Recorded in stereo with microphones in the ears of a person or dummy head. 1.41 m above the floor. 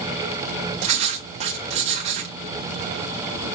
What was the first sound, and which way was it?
Writing, 35° right (ahead or behind).